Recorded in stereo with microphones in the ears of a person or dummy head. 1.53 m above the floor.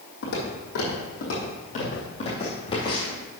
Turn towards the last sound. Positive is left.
turn(degrees=20)  # may be behind; listen again after turning